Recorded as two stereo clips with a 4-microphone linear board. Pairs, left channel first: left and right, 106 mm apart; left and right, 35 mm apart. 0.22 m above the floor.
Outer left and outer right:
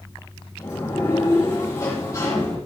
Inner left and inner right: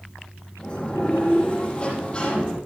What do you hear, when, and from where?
0.6 s a sliding door: 30° left (ahead or behind), 6 m